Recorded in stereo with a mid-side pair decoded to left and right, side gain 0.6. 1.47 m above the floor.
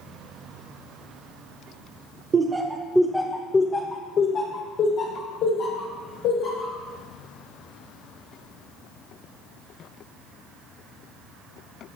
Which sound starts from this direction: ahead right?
Laughter, at 2.3 s.